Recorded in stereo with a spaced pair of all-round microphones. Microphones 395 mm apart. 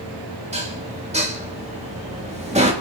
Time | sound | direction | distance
0.5 | dishes clattering | 15° right (ahead or behind) | 2.5 m